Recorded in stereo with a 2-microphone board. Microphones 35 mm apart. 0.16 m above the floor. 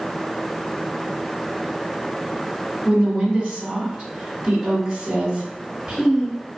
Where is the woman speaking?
10° right (ahead or behind), 1.4 m.